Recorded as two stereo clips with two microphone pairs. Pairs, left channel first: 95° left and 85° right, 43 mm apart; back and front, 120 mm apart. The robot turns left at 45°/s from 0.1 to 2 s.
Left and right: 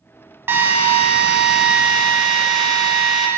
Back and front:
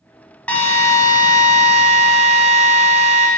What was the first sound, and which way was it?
A drill, 105° right.